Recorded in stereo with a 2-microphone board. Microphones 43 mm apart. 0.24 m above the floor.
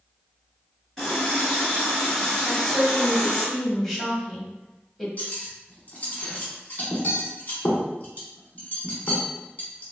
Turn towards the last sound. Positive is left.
turn(degrees=40)  # may be behind; listen again after turning